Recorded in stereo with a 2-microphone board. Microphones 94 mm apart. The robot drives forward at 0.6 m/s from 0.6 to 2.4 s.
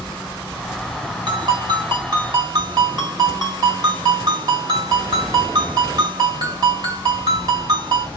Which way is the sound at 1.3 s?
60° right (ahead or behind).